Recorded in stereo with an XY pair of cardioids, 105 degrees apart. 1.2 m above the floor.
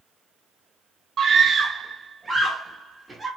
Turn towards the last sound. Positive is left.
turn(degrees=-10)